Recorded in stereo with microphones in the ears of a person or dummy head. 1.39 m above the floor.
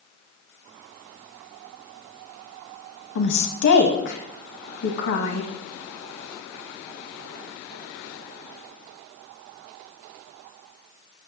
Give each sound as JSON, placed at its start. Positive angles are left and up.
{"t": 3.1, "sound": "a woman speaking", "side_deg": 65, "distance_m": 1.2}